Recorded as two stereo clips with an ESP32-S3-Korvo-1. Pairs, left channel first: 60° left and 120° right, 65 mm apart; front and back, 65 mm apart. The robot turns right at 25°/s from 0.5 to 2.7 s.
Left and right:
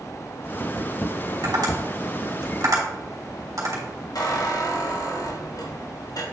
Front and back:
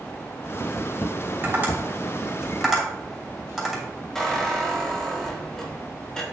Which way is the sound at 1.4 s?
120° right.